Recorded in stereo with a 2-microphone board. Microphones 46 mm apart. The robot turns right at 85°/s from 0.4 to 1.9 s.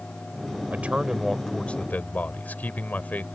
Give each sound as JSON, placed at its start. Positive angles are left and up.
{"t": 0.7, "sound": "a man speaking", "azimuth_deg": -50}